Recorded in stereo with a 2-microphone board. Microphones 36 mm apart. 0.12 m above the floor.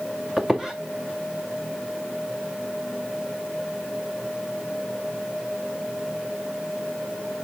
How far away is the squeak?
About 1.9 m.